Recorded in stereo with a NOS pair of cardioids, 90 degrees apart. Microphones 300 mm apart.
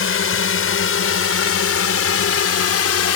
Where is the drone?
45° left; by 3.2 s 55° left.